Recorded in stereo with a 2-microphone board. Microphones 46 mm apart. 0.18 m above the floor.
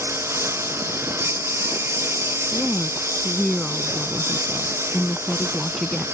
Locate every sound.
0.0 s a lawn mower: 70° right (ahead or behind)
2.5 s a woman speaking: 10° left (ahead or behind)